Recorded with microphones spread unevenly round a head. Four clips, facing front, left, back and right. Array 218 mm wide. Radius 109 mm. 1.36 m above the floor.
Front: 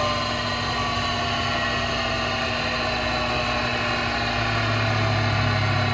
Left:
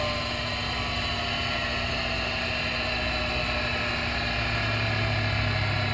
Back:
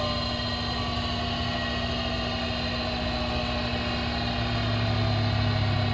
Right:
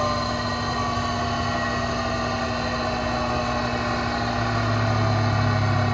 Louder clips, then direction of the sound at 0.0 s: Right 7 dB, front 5 dB; 45° right.